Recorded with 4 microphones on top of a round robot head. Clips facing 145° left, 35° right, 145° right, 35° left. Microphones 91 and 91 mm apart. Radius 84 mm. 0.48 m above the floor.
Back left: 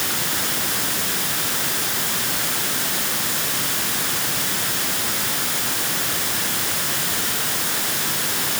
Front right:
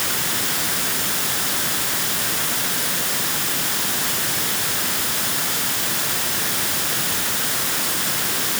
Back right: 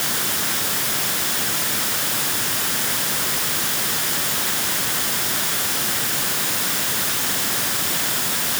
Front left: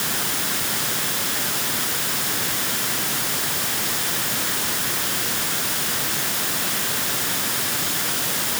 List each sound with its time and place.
Only background noise.